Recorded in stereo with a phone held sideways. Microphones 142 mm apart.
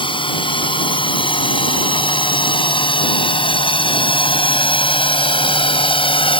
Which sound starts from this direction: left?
A drone, at 0.0 s.